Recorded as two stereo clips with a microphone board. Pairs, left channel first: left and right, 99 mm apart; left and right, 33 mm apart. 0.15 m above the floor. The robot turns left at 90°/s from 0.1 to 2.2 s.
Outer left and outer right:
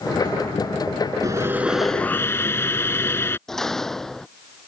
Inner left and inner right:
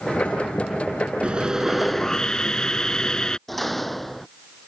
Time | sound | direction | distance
1.2 | sawing | 125° right | ?
3.5 | a door slam | 5° left (ahead or behind) | ?